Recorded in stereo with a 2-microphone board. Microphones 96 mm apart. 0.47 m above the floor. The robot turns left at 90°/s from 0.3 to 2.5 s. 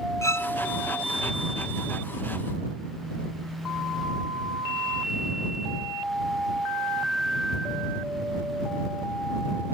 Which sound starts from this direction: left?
A violin, at 0.2 s.